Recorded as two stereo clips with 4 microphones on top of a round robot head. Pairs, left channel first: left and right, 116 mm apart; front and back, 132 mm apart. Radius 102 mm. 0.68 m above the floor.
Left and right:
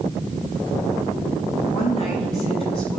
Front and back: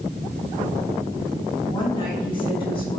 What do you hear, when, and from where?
1.7 s a woman speaking: 55° left, 5 m; by 3.0 s 50° left, 6 m